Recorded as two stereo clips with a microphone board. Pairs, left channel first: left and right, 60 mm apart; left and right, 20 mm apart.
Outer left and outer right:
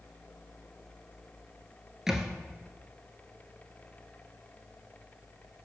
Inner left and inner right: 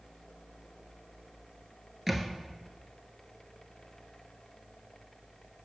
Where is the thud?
10° right (ahead or behind), 0.8 m.